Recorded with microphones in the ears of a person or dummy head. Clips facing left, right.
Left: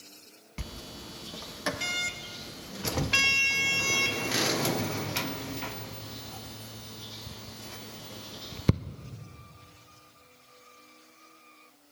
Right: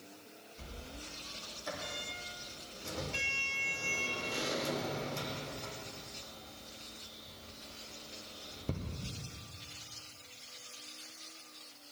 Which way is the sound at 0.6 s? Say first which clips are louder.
Left 6 dB; 70° left (ahead or behind).